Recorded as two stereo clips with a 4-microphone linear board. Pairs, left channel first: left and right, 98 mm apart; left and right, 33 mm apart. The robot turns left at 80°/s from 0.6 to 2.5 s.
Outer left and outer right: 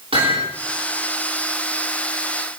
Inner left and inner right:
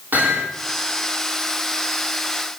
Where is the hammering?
75° right (ahead or behind), 9.5 m.